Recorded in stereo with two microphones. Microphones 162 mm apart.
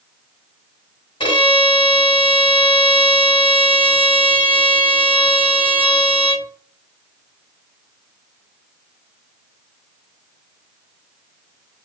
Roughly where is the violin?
Left.